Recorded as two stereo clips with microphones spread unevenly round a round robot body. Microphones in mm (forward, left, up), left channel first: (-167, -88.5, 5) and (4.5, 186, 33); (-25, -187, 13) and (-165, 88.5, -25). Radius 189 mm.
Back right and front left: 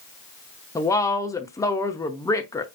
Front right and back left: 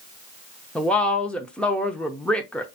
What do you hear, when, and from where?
0.8 s a woman speaking: 165° right, 0.7 m